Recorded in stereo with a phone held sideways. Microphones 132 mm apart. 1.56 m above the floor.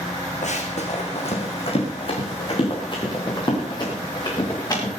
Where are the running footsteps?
65° left (ahead or behind), 4 m; by 4.9 s 30° left (ahead or behind), 9 m.